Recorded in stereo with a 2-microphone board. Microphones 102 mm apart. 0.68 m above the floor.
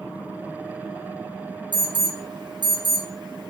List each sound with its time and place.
1.7 s an alarm: 50° right (ahead or behind), 0.9 m